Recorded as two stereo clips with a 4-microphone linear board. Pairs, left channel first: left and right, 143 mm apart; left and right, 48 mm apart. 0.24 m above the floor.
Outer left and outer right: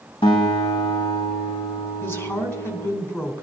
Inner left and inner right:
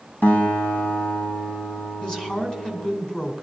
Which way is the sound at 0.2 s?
45° left (ahead or behind).